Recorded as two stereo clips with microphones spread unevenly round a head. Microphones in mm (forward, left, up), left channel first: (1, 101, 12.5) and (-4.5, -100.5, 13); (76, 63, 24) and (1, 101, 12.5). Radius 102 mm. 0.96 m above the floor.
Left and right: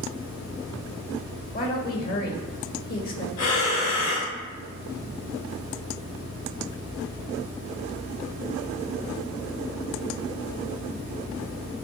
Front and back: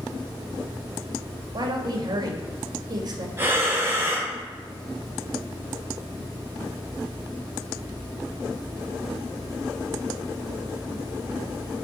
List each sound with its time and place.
1.5 s a woman speaking: 130° left, 2 m
3.4 s breathing: 90° left, 4 m